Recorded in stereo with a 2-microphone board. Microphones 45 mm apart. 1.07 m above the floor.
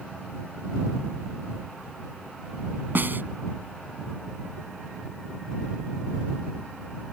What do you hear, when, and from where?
3.0 s a snare drum: 50° right (ahead or behind)